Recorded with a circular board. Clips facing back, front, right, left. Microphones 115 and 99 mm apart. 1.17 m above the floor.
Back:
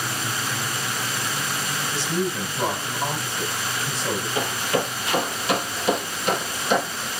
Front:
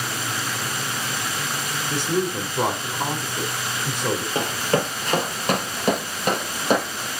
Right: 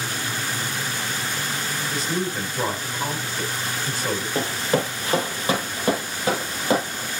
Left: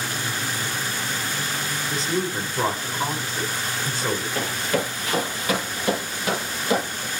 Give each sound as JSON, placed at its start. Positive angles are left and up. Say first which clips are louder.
{"t": 1.9, "sound": "a woman speaking", "louder": "front 3 dB, left 2 dB", "azimuth_deg": 25, "distance_m": 4.5}
{"t": 4.3, "sound": "running footsteps", "louder": "front 1 dB, right 2 dB", "azimuth_deg": -40, "distance_m": 1.7}